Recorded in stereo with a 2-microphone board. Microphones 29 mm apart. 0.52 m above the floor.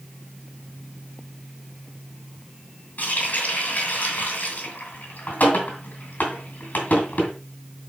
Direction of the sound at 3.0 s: 70° left (ahead or behind).